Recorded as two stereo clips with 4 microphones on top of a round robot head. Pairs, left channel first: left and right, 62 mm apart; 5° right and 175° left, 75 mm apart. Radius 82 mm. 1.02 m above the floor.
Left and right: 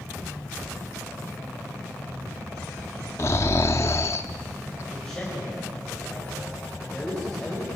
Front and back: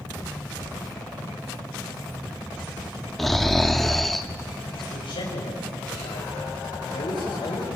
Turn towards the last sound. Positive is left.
turn(degrees=5)